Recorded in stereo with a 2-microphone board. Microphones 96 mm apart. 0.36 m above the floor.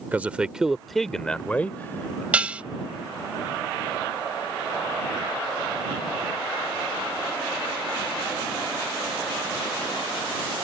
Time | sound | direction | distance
0.1 | a man speaking | 20° right (ahead or behind) | ?
2.3 | dishes clattering | 15° right (ahead or behind) | ?